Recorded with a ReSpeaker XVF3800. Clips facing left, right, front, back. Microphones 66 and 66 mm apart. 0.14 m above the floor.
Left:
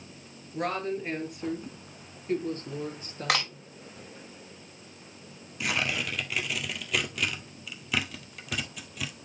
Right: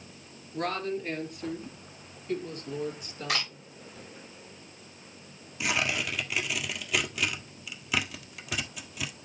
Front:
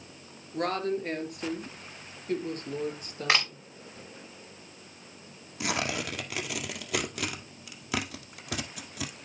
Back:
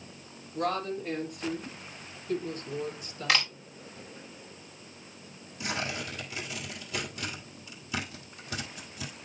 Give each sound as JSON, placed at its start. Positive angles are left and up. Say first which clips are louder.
{"t": 0.5, "sound": "a woman speaking", "louder": "left 1 dB, front 2 dB", "azimuth_deg": 5, "distance_m": 3.0}
{"t": 3.3, "sound": "a camera shutter", "louder": "left 4 dB, front 1 dB", "azimuth_deg": 65, "distance_m": 3.0}
{"t": 5.6, "sound": "tearing paper", "louder": "right 1 dB, front 3 dB", "azimuth_deg": -5, "distance_m": 1.5}